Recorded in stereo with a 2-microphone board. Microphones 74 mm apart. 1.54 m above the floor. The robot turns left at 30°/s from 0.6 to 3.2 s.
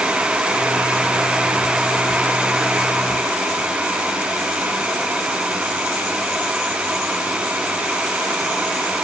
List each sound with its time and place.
Only background noise.